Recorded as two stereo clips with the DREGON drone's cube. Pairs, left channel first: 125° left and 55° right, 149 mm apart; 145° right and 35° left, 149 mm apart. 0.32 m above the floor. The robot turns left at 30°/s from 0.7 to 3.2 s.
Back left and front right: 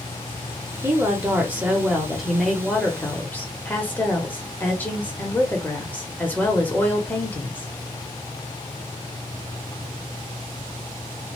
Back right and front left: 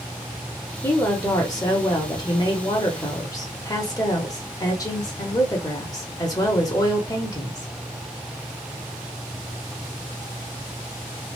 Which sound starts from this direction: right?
A woman speaking, at 0.8 s.